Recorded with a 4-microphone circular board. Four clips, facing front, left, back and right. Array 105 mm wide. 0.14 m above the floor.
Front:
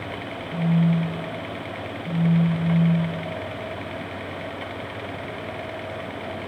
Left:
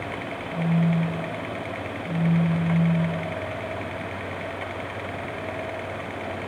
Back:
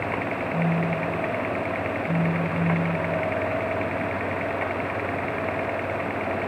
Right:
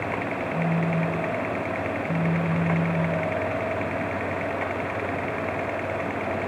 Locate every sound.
0.5 s a phone buzzing: 20° left, 6.5 m